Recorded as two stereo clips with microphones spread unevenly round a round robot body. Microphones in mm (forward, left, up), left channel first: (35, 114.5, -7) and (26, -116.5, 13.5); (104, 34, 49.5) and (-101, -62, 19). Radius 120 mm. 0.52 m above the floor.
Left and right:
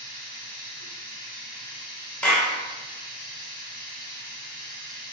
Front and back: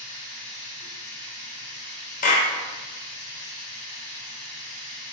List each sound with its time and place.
0.0 s running water: 60° left, 1.3 m
2.2 s a clap: 20° left, 0.5 m